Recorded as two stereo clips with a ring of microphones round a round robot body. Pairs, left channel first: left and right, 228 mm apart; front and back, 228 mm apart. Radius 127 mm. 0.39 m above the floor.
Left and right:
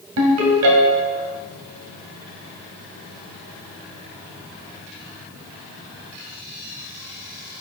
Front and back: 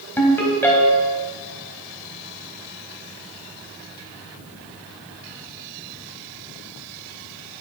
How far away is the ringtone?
About 1.6 m.